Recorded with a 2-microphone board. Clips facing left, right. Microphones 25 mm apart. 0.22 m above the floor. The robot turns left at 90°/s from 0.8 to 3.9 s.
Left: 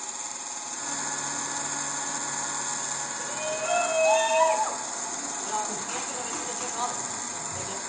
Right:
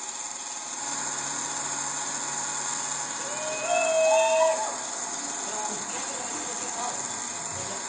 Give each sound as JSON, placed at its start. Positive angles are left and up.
{"t": 3.2, "sound": "a shout", "side_deg": -20, "distance_m": 2.5}